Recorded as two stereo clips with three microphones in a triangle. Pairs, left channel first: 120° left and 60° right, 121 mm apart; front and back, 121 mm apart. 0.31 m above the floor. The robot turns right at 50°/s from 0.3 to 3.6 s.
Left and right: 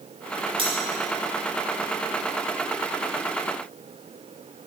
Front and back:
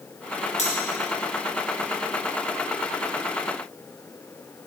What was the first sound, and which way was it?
Cutlery clinking, 15° right.